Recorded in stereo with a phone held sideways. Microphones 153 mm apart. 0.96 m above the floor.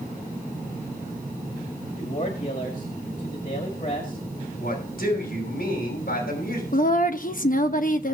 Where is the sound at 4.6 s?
80° left, 6 m.